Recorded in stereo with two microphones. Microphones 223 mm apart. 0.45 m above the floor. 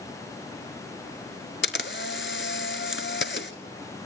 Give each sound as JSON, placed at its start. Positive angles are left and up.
{"t": 1.6, "sound": "a camera shutter", "side_deg": 60, "distance_m": 1.1}